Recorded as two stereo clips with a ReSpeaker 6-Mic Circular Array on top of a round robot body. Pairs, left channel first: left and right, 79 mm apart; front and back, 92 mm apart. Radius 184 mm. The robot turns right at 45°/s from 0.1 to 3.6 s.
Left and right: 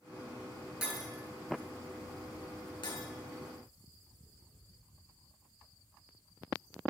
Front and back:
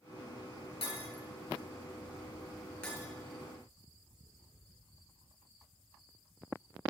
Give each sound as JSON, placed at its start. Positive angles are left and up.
{"t": 0.8, "sound": "breaking glass", "azimuth_deg": -20, "distance_m": 5.5}